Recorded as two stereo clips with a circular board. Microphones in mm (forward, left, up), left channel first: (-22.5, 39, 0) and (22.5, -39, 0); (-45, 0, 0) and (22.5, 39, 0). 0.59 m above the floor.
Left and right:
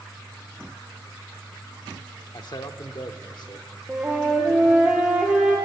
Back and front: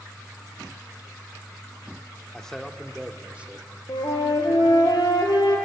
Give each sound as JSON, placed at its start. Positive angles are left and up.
{"t": 2.3, "sound": "a man speaking", "azimuth_deg": 135, "distance_m": 1.2}
{"t": 3.9, "sound": "a flute", "azimuth_deg": -145, "distance_m": 4.0}